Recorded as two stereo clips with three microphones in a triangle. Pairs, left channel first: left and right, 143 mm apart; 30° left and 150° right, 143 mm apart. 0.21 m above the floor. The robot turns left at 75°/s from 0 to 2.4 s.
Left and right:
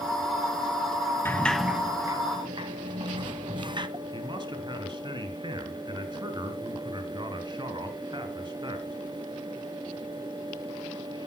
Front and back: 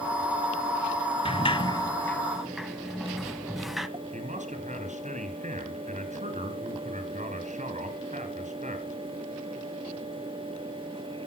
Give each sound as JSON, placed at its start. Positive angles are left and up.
{"t": 1.2, "sound": "a sliding door", "azimuth_deg": 25, "distance_m": 1.1}
{"t": 4.1, "sound": "a man speaking", "azimuth_deg": -145, "distance_m": 3.0}